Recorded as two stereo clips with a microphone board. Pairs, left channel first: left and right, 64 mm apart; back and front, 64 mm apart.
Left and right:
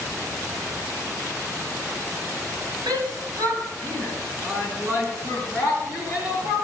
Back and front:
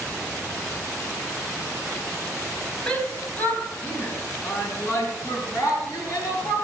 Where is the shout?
105° right, 3.5 m; by 6.5 s 145° right, 7.5 m.